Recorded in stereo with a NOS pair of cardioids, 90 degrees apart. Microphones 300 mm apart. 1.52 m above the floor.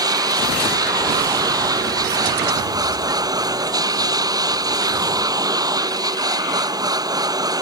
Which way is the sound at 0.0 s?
10° right.